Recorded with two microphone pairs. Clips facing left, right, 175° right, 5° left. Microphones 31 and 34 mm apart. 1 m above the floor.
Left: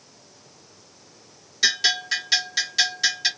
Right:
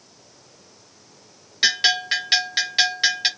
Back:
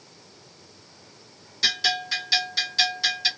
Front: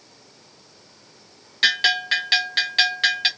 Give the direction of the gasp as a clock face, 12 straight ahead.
I don't hear a gasp.